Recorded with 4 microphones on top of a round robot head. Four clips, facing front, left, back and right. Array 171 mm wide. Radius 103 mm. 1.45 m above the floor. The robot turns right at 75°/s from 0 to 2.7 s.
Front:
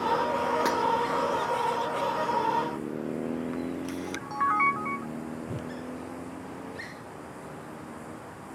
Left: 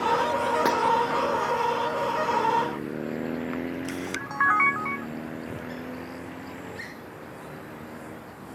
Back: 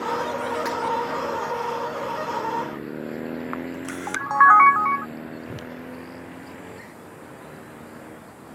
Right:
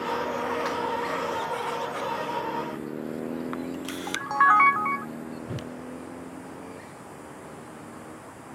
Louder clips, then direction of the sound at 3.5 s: Left 2 dB, back 1 dB; 160° right.